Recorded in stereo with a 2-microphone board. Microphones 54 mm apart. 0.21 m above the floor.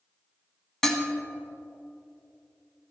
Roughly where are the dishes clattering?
Centre.